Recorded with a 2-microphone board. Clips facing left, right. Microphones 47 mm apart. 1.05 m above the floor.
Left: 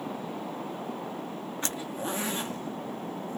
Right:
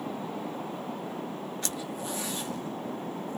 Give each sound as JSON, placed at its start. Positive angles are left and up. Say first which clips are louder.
{"t": 1.6, "sound": "a zipper", "louder": "left 2 dB", "side_deg": 30, "distance_m": 0.6}